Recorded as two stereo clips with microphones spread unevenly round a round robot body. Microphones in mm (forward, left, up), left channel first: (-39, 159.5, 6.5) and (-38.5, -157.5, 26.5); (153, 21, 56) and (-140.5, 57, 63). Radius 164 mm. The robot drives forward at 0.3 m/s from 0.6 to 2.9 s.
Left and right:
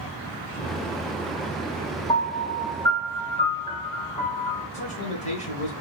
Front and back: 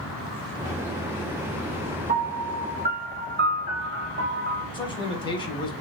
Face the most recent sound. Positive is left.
turn(degrees=50)